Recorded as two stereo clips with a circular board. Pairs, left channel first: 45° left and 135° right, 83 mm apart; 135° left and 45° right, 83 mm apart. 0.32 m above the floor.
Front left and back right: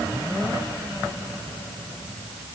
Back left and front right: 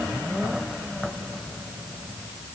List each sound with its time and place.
Only background noise.